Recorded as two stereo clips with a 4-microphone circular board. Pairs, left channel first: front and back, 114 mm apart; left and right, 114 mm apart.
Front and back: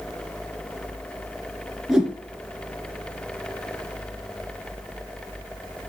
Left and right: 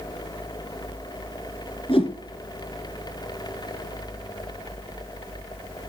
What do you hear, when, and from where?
1.9 s a whoosh: 95° left, 2.5 m